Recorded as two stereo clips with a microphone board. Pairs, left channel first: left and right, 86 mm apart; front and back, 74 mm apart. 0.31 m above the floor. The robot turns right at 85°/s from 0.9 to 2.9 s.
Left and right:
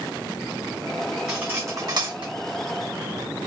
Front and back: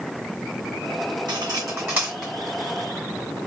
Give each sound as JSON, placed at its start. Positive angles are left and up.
{"t": 1.3, "sound": "cutlery clinking", "azimuth_deg": -175, "distance_m": 1.5}